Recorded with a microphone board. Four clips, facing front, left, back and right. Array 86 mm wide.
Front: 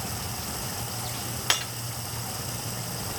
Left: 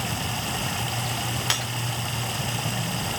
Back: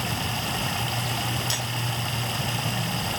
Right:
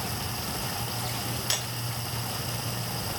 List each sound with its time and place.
0.0 s running water: 140° left, 0.7 m
1.5 s breaking glass: 40° left, 8 m